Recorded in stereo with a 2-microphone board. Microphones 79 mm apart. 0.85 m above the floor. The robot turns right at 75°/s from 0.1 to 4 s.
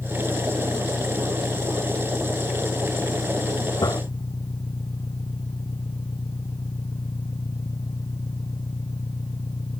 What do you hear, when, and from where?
0.0 s an engine running: straight behind; by 9.8 s 115° left
3.8 s a gunshot: 75° left (ahead or behind); by 4.0 s 60° left (ahead or behind)